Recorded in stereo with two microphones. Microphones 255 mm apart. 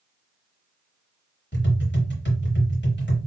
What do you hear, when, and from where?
1.5 s tapping: 45° left (ahead or behind), 2.5 m